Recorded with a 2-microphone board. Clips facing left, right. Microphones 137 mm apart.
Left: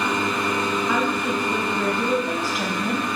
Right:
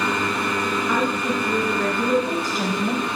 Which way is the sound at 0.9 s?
15° left (ahead or behind).